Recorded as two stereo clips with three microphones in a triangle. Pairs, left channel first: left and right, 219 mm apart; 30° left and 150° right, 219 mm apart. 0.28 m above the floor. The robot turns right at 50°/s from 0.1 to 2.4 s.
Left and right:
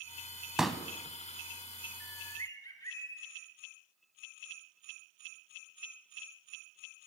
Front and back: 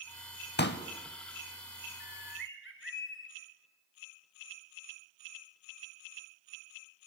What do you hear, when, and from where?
0.6 s a pop: 5° right, 0.5 m; by 0.8 s 10° left, 0.5 m
2.0 s a bird: straight ahead, 0.8 m; by 3.3 s 20° left, 0.8 m